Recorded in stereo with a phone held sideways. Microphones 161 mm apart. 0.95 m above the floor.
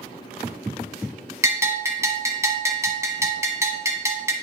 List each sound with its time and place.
1.4 s a bell: 20° right (ahead or behind), 1.2 m